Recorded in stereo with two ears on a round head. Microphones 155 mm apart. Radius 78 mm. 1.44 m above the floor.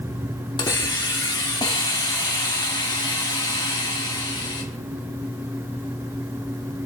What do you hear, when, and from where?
0.6 s a hiss: 25° left (ahead or behind), 1.7 m